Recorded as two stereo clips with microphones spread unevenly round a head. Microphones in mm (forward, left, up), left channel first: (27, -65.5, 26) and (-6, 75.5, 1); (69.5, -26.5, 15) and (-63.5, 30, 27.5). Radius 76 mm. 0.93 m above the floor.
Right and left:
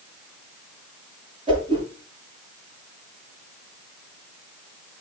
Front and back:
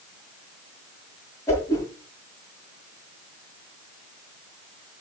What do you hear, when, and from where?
1.5 s a whoosh: 45° left, 6.5 m